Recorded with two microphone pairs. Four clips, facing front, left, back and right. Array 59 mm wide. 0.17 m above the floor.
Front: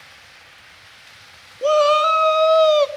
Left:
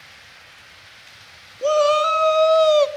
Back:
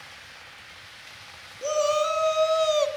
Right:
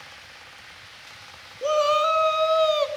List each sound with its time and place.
1.6 s a shout: 10° left, 1.6 m; by 2.9 s 20° left, 1.1 m